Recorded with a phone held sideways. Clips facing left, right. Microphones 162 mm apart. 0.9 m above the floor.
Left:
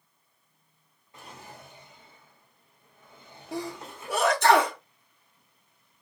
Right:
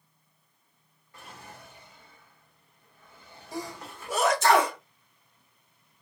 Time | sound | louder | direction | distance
1.1 | a drawer | left 1 dB | 20° left (ahead or behind) | 1.1 m
3.5 | a sneeze | left 3 dB | 60° left (ahead or behind) | 1.3 m